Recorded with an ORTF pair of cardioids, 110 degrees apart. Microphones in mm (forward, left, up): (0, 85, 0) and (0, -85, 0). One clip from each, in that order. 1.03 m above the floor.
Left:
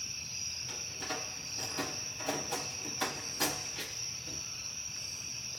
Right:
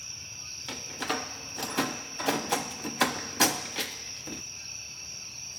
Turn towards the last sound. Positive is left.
turn(degrees=-60)